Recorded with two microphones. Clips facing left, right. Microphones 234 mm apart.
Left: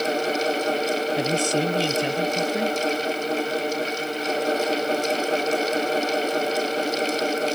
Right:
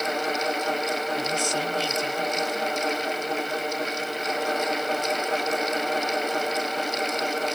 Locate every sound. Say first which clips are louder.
1.2 s a man speaking: left 6 dB; 80° left